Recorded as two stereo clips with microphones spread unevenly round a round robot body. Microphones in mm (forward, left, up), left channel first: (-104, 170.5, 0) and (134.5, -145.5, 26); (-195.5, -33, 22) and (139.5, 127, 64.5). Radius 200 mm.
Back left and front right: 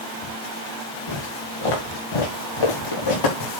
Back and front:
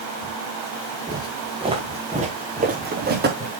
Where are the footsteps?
105° left, 6 m; by 3.5 s 85° left, 5.5 m.